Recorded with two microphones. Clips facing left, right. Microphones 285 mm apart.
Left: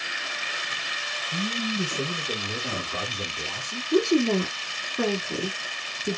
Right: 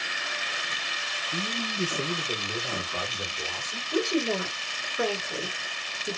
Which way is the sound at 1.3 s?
25° left (ahead or behind).